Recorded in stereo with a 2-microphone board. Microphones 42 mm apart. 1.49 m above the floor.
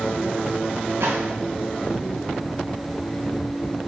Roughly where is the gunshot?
Right.